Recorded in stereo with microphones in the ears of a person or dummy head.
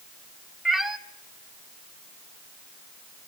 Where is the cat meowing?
Centre (ahead or behind), 1.0 m.